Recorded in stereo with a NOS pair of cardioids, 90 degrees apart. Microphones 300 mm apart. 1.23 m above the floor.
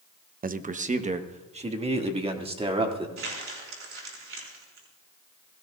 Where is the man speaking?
30° right, 0.8 m; by 3.1 s 20° right, 3 m.